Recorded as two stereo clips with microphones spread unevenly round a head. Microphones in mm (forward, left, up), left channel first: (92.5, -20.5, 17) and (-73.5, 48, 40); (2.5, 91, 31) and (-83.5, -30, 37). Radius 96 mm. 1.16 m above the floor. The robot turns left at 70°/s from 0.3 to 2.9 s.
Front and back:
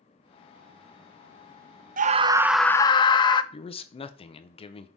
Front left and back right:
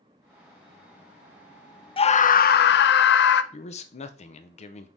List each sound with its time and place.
2.0 s a scream: 110° left, 0.6 m; by 3.4 s 45° left, 0.6 m
3.5 s a man speaking: 25° left, 0.6 m